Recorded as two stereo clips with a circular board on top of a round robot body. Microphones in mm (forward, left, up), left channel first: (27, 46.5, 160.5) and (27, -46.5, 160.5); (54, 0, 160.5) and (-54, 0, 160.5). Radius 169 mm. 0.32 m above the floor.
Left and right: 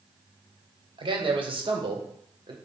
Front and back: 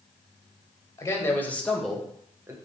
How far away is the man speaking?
About 3 m.